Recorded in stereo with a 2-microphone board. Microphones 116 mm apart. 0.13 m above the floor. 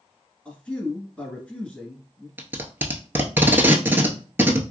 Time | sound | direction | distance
0.5 | a man speaking | 10° left (ahead or behind) | 1.5 m
2.4 | tape being pulled | 20° right (ahead or behind) | 0.7 m